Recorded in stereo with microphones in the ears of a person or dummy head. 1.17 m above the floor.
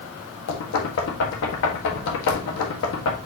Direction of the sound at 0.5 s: 70° left (ahead or behind).